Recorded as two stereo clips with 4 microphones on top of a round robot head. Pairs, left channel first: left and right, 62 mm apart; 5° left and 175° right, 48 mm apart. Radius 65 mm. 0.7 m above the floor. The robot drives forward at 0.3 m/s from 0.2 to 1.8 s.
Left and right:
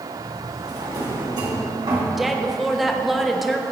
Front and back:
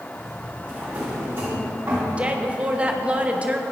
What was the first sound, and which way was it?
A drawer, 105° right.